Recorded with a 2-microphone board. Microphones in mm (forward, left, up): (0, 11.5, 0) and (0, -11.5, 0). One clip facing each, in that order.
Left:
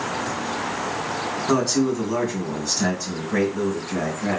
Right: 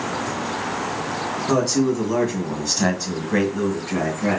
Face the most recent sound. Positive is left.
turn(degrees=-45)  # may be behind; listen again after turning